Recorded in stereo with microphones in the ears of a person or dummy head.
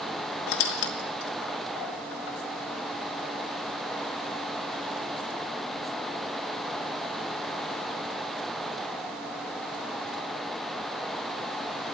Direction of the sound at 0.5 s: 60° left (ahead or behind).